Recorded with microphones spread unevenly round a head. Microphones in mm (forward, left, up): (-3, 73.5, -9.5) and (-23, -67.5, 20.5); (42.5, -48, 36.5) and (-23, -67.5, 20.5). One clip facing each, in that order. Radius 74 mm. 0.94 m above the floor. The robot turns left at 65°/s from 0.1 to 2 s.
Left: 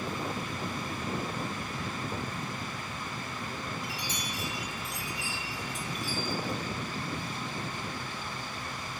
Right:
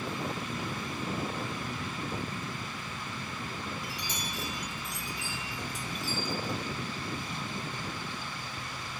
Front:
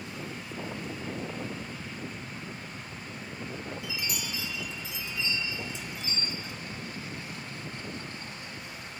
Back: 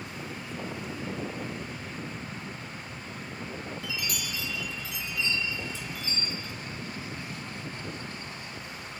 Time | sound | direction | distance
3.8 | a chime | 45° right | 2.5 m